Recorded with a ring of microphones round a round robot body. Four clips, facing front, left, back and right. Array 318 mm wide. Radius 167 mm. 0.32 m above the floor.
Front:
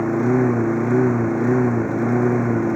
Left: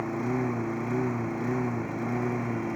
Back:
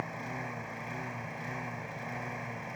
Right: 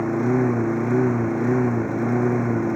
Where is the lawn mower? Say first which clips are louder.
Right 9 dB, front 21 dB; 20° right.